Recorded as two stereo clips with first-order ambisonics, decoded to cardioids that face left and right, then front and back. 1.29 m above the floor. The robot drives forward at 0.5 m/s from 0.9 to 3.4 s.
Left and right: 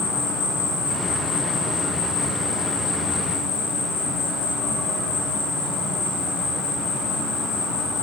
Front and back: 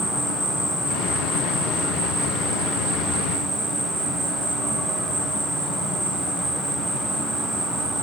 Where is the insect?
80° left, 3 m; by 8.1 s 100° left, 3.5 m.